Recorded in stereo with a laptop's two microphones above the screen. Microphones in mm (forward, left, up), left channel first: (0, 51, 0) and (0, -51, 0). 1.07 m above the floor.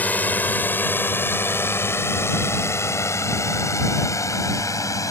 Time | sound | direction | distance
0.0 | a drone | 15° left (ahead or behind) | ?